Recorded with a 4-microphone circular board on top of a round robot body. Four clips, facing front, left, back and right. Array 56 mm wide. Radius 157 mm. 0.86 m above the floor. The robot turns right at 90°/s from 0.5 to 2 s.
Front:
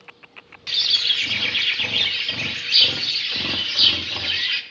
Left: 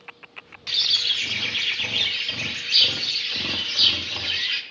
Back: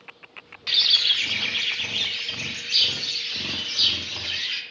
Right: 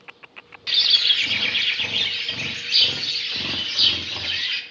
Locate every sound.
0.7 s a bird: 125° right, 0.8 m; by 4.6 s 5° right, 0.8 m